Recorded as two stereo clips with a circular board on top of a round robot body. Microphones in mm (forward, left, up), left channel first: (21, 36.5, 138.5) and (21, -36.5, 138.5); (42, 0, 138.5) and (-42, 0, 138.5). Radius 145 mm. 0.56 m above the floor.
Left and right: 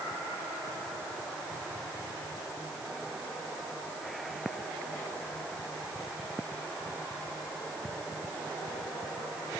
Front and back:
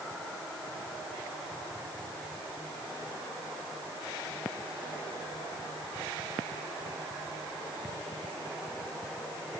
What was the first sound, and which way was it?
Only background noise.